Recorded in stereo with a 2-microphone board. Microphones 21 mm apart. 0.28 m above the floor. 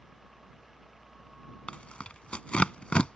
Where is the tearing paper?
70° left (ahead or behind).